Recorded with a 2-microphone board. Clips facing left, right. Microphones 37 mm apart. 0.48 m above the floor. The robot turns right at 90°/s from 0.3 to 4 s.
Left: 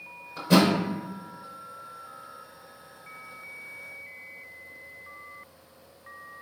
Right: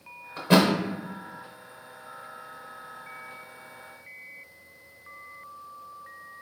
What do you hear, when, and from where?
0.4 s a thud: 20° right (ahead or behind), 0.6 m; by 0.7 s 45° right (ahead or behind), 0.6 m